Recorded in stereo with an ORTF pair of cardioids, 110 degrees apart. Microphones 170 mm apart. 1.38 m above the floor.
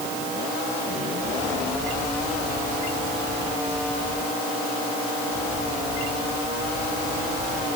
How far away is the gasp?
I don't hear a gasp.